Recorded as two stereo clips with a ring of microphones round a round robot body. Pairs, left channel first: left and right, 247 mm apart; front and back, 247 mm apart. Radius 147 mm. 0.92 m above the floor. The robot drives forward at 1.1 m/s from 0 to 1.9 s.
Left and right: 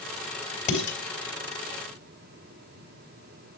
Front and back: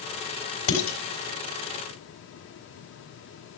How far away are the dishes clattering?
About 4 m.